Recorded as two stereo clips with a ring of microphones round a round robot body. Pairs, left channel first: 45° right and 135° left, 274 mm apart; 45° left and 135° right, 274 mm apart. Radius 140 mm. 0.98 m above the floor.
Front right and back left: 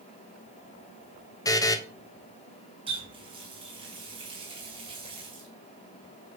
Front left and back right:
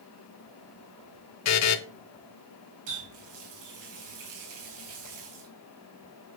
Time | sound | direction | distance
1.4 | a buzzer | 30° left | 1.0 m
2.9 | a running tap | 155° right | 4 m